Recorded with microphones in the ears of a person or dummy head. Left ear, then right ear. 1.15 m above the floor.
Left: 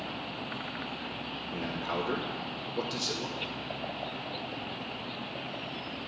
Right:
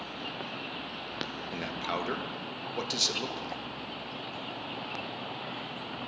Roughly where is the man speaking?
Right.